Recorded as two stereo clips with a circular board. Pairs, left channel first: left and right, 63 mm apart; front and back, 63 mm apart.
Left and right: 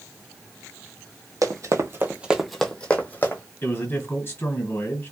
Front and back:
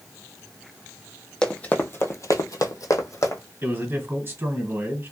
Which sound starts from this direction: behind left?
A man speaking, at 3.6 s.